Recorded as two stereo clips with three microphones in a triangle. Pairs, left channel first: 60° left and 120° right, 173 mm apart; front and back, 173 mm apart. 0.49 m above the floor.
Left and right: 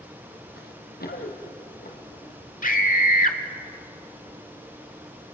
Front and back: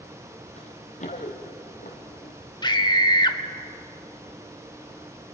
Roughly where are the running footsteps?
Ahead left.